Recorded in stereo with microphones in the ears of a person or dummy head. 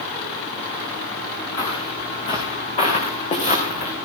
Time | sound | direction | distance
1.6 | footsteps | 20° left (ahead or behind) | 5 m